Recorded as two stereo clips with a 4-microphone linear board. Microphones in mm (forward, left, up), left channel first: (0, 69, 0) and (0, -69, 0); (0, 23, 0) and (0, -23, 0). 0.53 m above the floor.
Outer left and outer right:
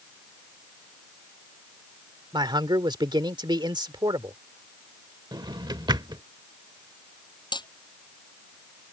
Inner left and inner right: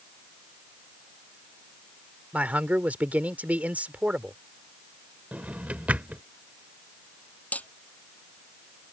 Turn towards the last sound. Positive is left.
turn(degrees=30)  # may be behind; listen again after turning